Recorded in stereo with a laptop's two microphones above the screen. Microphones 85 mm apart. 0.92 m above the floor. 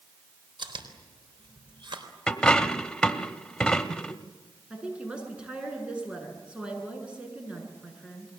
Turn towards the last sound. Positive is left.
turn(degrees=-10)  # may be behind; listen again after turning